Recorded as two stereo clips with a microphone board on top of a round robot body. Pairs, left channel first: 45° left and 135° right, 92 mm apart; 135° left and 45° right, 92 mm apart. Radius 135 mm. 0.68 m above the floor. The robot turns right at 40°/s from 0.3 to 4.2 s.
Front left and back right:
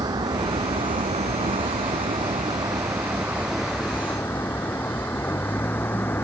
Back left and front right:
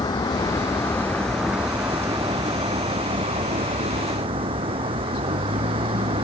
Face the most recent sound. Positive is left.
turn(degrees=-25)